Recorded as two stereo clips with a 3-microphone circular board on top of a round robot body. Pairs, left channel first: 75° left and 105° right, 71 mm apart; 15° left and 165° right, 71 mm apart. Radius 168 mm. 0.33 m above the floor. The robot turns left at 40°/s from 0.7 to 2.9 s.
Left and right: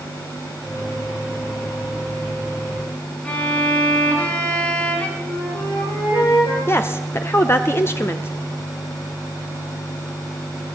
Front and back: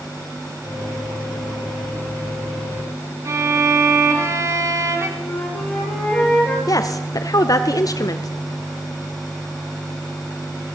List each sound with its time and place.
3.2 s a violin: 150° left, 3.5 m
5.2 s a flute: 95° left, 8 m
6.7 s a woman speaking: 30° left, 1.4 m